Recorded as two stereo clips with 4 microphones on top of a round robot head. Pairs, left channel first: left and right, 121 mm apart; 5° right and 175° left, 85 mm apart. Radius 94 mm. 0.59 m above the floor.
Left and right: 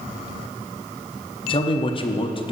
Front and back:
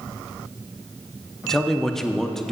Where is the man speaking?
80° left, 0.8 m.